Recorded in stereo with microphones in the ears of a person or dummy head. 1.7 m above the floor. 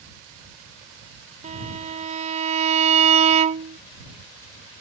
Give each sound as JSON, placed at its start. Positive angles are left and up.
{"t": 1.4, "sound": "a violin", "side_deg": -40}